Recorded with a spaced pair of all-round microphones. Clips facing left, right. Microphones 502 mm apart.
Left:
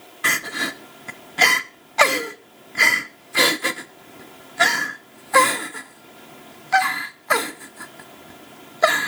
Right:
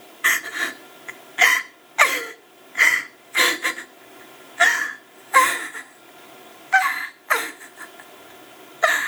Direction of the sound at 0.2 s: 60° left (ahead or behind).